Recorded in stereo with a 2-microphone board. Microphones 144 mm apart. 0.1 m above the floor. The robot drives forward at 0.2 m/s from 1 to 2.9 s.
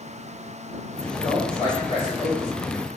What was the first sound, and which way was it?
A man speaking, 35° left (ahead or behind).